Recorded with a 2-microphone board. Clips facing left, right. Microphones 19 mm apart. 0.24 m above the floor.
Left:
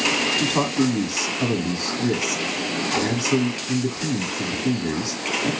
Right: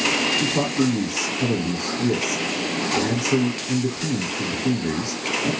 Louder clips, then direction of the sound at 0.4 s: Even; 40° left (ahead or behind).